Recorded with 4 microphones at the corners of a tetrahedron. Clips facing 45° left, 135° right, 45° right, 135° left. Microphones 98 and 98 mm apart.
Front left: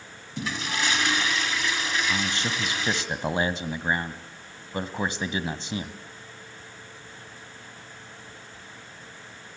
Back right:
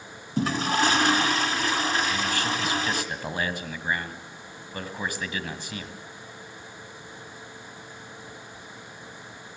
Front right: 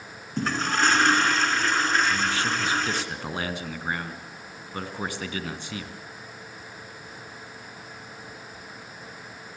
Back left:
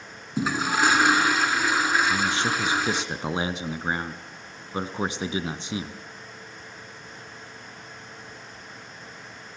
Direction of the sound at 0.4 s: 150° right.